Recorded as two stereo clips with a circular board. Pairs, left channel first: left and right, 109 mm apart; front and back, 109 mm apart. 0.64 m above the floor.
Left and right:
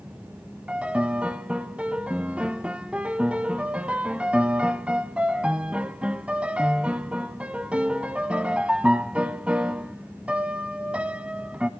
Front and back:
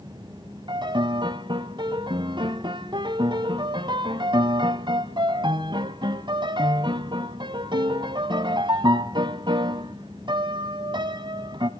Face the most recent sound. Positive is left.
turn(degrees=-165)